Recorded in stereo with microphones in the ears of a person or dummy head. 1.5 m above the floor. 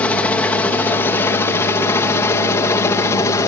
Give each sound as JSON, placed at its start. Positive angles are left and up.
{"t": 0.0, "sound": "a helicopter", "side_deg": 5}